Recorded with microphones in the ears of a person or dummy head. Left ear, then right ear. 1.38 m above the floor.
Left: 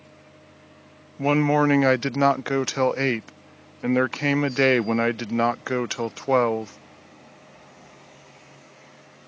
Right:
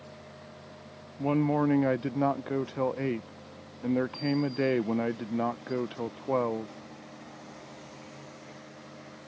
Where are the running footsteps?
No running footsteps in this recording.